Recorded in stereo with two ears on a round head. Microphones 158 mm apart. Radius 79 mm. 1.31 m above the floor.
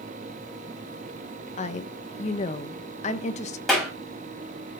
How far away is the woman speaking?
About 1.3 m.